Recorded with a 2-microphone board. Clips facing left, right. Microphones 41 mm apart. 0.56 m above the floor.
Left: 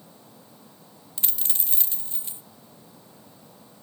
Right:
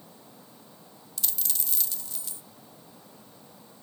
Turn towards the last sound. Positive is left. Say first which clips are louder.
# left 1 dB
turn(degrees=30)  # may be behind; listen again after turning